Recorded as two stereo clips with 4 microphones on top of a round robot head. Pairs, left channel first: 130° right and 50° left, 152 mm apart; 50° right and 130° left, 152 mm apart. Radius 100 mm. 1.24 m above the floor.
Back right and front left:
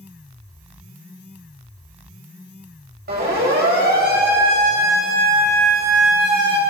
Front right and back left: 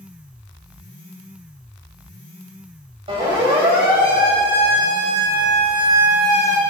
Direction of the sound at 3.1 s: 75° left.